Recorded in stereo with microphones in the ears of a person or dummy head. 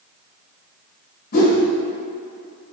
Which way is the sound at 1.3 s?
55° left (ahead or behind).